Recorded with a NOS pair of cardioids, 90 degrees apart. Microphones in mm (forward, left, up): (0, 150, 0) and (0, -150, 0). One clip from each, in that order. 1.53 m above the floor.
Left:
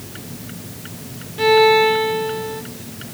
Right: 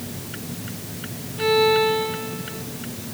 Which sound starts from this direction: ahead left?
A violin, at 1.4 s.